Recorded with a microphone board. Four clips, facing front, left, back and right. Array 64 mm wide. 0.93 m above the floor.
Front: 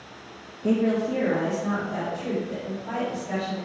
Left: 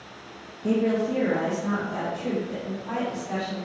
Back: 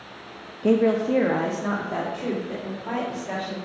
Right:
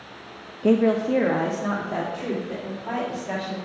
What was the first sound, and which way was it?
A woman speaking, 125° right.